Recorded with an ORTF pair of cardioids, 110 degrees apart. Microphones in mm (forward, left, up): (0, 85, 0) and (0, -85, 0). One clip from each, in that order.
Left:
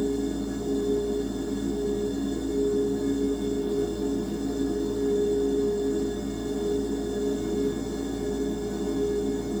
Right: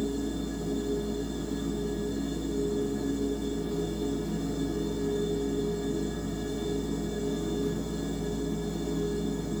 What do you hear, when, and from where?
0.0 s a machine running: 10° left, 0.9 m